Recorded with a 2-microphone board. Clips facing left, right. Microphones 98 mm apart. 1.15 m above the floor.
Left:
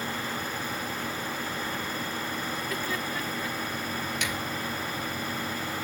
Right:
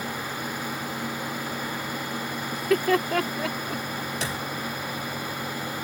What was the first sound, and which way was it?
Laughter, 65° right (ahead or behind).